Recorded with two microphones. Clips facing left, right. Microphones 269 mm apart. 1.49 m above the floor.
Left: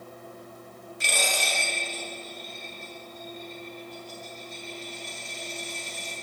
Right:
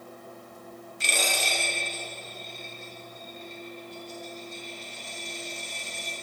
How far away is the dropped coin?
About 3 m.